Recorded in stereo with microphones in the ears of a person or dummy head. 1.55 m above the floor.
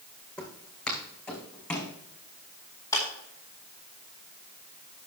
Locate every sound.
0.4 s footsteps: 5° left (ahead or behind), 3.5 m
2.9 s a clap: 15° left (ahead or behind), 4 m